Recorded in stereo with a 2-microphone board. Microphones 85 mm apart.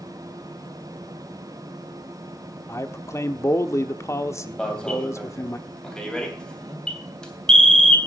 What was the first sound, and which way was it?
A man speaking, 35° left (ahead or behind).